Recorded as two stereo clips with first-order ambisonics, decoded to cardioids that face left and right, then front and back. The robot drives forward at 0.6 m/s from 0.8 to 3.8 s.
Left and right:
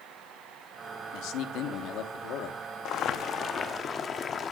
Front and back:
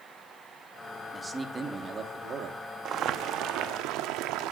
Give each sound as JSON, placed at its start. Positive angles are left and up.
{"t": 1.1, "sound": "a man speaking", "azimuth_deg": 95, "distance_m": 1.5}
{"t": 2.9, "sound": "boiling", "azimuth_deg": 130, "distance_m": 0.7}